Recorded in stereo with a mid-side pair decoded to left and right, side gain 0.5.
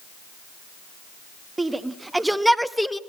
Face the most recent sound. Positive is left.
turn(degrees=10)